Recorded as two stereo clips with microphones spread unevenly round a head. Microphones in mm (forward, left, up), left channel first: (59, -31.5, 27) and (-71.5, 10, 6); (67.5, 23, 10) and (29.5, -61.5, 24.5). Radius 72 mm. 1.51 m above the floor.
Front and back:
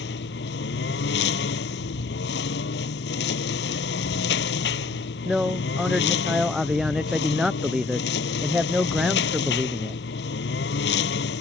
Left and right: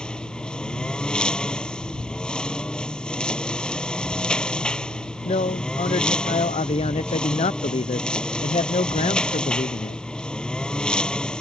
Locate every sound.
0.0 s a lawn mower: 15° right
5.2 s a man speaking: 75° left